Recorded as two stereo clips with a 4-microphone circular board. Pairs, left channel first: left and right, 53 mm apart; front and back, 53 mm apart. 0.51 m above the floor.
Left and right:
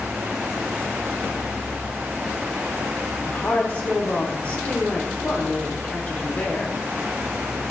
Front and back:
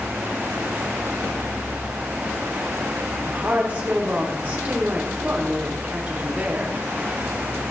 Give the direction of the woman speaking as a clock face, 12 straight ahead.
8 o'clock.